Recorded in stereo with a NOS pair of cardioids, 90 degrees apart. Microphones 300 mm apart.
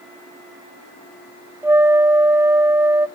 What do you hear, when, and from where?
1.6 s a flute: 10° right, 0.6 m